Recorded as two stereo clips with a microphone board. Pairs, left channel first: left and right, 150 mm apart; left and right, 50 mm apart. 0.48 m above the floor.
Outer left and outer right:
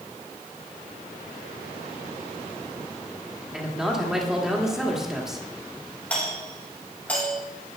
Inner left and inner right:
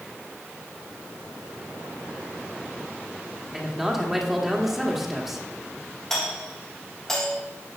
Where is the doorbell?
10° left (ahead or behind), 4 m.